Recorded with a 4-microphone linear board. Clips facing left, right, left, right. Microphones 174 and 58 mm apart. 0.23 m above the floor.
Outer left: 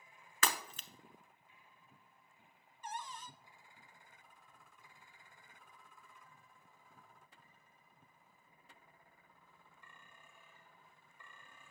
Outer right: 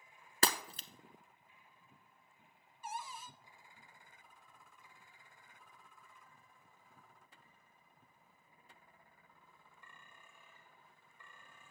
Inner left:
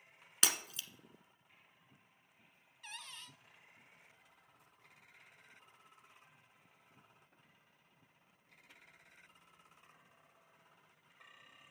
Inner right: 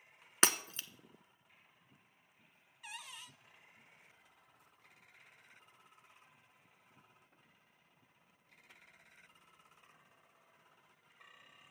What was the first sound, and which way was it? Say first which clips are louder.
Breaking glass: outer right 3 dB, inner right 5 dB; 40° right (ahead or behind).